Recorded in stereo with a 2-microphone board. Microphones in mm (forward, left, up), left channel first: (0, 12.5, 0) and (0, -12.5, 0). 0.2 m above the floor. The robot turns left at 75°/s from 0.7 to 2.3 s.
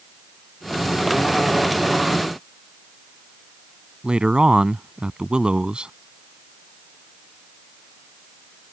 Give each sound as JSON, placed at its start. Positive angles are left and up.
{"t": 4.0, "sound": "a man speaking", "side_deg": -45}